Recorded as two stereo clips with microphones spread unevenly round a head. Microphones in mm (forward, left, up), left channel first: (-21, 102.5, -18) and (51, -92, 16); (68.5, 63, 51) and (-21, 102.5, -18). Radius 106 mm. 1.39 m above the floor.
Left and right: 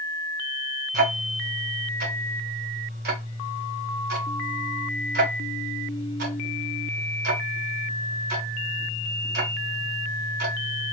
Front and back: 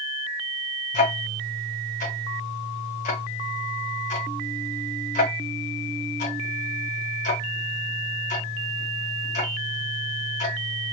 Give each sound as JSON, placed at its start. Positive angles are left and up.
{"t": 0.9, "sound": "ticking", "azimuth_deg": -25, "distance_m": 0.9}